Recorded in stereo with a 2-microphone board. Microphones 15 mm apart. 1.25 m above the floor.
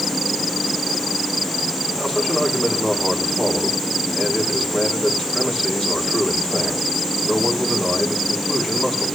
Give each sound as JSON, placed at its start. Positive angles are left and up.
{"t": 2.0, "sound": "a man speaking", "side_deg": 60, "distance_m": 5.5}